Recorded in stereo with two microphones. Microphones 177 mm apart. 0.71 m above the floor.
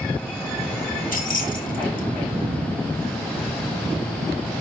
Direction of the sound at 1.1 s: 50° left (ahead or behind).